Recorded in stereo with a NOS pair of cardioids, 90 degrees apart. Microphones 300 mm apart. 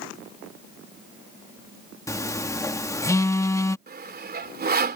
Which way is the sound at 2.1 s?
10° left.